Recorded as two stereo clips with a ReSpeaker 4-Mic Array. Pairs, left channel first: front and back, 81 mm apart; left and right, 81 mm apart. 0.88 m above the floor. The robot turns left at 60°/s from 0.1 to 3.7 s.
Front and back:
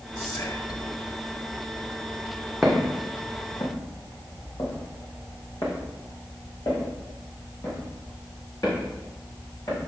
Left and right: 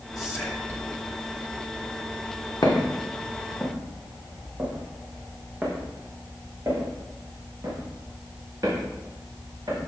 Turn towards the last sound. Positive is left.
turn(degrees=-45)